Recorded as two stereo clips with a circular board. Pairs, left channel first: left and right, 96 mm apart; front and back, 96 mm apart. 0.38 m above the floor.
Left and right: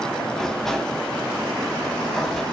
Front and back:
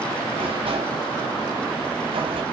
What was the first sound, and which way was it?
A sliding door, 175° left.